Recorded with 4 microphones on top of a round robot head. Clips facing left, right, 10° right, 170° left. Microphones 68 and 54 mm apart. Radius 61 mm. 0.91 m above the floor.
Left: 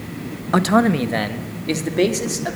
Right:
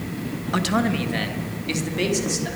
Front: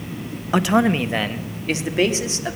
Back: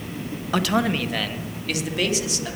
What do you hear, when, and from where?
0.5 s a man speaking: 50° left, 1.3 m; by 2.5 s 40° left, 3 m